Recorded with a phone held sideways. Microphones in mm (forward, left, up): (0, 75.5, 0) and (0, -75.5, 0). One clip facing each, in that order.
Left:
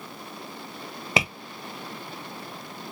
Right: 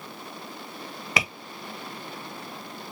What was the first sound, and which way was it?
Tapping, 25° left (ahead or behind).